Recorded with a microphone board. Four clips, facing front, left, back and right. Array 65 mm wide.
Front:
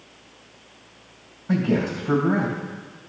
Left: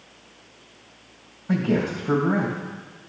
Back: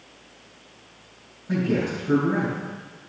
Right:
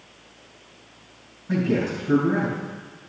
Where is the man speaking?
60° left, 3 m.